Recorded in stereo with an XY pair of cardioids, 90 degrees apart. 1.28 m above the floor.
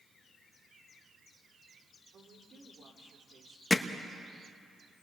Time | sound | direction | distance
2.1 | a woman speaking | 60° right | 4 m
3.7 | hammering | 30° left | 1.5 m